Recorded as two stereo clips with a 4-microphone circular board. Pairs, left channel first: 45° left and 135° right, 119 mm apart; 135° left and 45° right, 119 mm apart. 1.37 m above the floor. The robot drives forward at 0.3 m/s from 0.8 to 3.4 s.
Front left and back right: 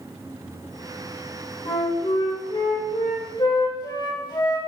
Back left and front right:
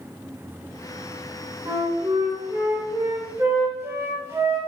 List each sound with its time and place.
1.6 s a flute: 10° left, 1.8 m; by 4.7 s 15° left, 1.4 m